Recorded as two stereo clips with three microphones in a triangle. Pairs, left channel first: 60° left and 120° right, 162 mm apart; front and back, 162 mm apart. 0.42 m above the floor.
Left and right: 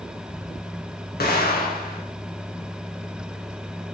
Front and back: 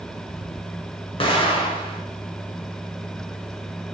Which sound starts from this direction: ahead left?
An explosion, at 1.2 s.